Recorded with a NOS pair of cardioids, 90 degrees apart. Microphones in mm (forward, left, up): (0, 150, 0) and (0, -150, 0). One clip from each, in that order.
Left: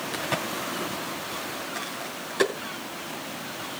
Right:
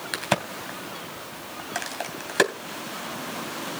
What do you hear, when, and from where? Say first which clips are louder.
0.1 s a crack: right 4 dB; 65° right, 3 m